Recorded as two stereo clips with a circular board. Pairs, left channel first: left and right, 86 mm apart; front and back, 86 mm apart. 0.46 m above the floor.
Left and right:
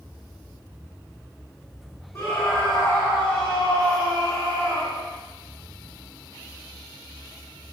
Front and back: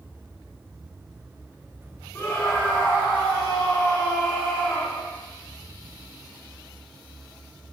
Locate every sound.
2.1 s a scream: 45° left, 1.7 m; by 5.1 s 55° left, 4.5 m